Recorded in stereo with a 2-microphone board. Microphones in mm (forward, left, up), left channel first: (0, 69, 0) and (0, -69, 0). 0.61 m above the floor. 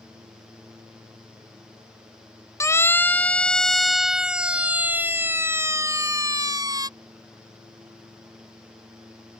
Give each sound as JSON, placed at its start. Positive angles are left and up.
{"t": 2.6, "sound": "a siren", "side_deg": 20}